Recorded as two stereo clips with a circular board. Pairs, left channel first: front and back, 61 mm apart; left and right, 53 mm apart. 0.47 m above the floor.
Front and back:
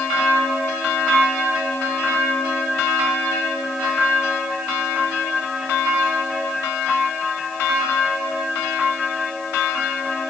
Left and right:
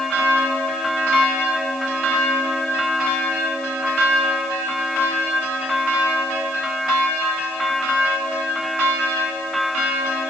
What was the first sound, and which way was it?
Only background noise.